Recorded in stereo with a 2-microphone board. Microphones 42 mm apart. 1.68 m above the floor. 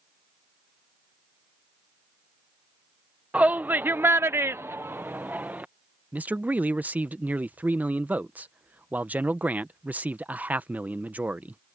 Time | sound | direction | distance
3.3 | a shout | 35° right (ahead or behind) | ?
6.1 | a man speaking | 40° right (ahead or behind) | ?